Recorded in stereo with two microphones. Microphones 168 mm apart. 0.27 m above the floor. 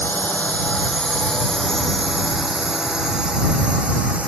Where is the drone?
10° left (ahead or behind); by 4.3 s 10° right (ahead or behind).